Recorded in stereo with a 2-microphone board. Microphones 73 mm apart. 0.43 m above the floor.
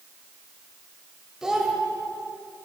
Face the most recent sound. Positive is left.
turn(degrees=-10)  # may be behind; listen again after turning